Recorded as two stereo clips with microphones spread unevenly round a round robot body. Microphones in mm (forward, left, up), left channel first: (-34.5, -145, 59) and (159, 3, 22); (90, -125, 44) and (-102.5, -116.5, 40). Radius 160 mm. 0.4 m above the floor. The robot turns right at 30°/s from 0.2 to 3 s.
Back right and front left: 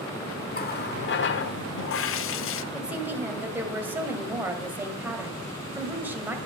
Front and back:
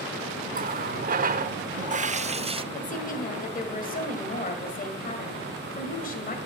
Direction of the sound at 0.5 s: 165° left.